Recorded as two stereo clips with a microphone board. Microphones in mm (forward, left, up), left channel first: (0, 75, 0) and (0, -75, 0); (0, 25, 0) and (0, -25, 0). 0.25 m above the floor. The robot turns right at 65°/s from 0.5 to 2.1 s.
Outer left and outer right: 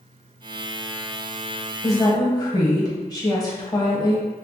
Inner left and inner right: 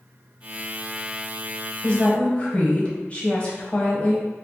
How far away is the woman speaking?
About 1.1 m.